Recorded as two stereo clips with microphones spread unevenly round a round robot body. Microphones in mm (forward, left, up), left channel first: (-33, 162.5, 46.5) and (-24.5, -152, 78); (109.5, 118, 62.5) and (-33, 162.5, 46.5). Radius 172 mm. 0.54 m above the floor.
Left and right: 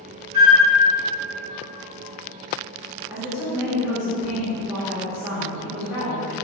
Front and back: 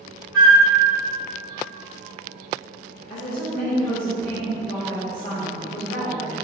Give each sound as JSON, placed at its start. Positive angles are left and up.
{"t": 0.3, "sound": "a flute", "azimuth_deg": -110, "distance_m": 1.8}
{"t": 3.1, "sound": "a woman speaking", "azimuth_deg": -10, "distance_m": 1.6}